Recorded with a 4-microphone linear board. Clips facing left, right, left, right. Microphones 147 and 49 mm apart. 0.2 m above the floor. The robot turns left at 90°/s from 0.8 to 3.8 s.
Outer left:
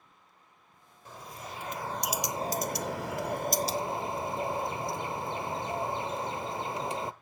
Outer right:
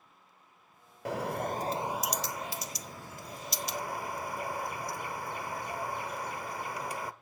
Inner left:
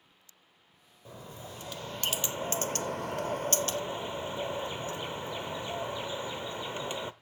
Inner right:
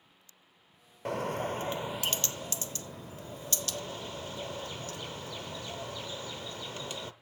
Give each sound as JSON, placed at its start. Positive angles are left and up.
{"t": 1.1, "sound": "a bird", "azimuth_deg": -90, "distance_m": 0.7}